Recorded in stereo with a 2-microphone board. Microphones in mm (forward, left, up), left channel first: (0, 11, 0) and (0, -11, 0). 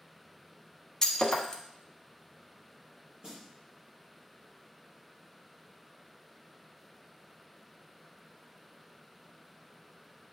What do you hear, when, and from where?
1.0 s breaking glass: 25° left (ahead or behind), 1.1 m
3.2 s a snare drum: 35° right (ahead or behind), 4 m